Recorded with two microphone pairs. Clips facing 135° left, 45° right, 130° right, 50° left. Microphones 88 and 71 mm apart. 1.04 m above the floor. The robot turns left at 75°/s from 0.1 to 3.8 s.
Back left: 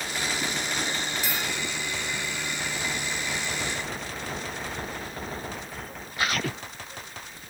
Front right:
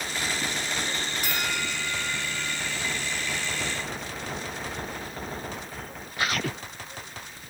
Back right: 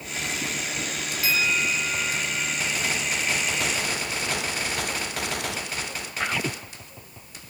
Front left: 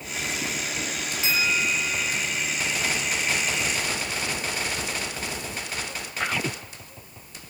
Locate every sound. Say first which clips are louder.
1.2 s a bell: front right 1 dB, even; 10° right; by 2.7 s 120° right